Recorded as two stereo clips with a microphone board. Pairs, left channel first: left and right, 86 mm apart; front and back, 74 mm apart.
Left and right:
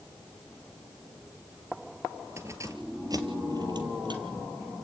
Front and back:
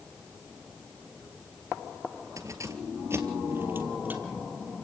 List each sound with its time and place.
2.4 s keys jangling: 145° right, 2.5 m; by 4.5 s 110° right, 3.5 m